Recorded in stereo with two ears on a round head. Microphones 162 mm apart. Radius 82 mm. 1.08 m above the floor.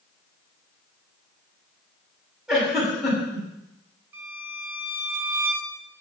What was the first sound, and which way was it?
A giggle, 5° right (ahead or behind).